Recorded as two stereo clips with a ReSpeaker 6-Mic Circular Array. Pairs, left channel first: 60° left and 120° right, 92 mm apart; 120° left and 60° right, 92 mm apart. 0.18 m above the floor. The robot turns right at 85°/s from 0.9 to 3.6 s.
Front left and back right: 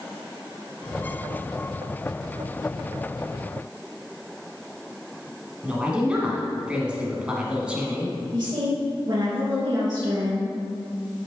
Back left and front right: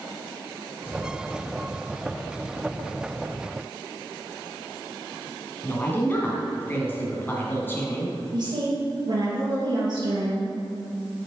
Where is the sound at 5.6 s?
170° left, 2.0 m.